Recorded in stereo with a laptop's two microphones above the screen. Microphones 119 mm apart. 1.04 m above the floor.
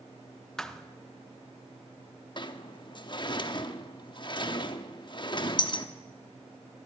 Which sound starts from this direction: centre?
A thud, at 0.6 s.